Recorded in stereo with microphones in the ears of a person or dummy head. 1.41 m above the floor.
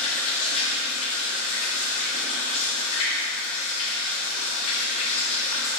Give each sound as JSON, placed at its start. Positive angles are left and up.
{"t": 0.0, "sound": "running water", "side_deg": 35, "distance_m": 1.0}